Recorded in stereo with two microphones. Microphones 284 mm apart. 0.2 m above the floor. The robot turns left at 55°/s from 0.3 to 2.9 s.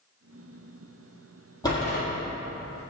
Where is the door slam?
15° left (ahead or behind), 3.5 m; by 2.0 s 30° left (ahead or behind), 3.5 m.